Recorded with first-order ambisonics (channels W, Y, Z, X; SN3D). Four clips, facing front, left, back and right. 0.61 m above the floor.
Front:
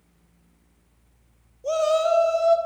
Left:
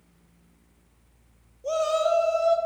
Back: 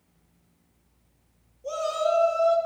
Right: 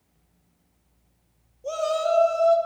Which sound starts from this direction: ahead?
A shout, at 1.6 s.